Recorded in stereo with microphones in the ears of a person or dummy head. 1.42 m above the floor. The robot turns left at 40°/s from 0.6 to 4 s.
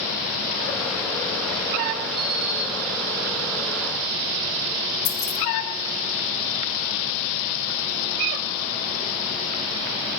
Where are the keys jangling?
85° left, 3 m.